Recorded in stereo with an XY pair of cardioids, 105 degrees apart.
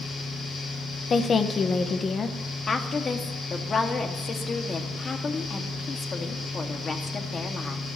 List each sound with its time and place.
0.0 s a fan: 50° left, 7.5 m
1.1 s a woman speaking: 45° left, 1.2 m
2.7 s a woman speaking: 40° left, 1.9 m